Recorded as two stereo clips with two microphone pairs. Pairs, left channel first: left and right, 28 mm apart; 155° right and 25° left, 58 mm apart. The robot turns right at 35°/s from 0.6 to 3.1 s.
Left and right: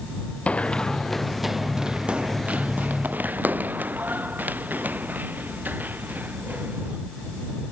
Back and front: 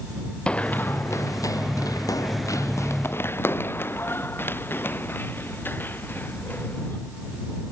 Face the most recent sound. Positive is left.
turn(degrees=-95)